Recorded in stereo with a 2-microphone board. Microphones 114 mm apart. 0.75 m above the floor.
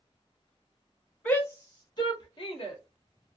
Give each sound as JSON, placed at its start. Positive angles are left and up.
{"t": 1.2, "sound": "a shout", "side_deg": 15, "distance_m": 0.6}